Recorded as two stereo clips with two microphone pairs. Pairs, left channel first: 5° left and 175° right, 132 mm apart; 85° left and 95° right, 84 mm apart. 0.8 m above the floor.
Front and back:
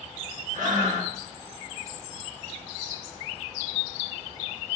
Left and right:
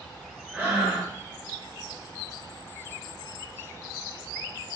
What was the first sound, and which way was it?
Breathing, 175° right.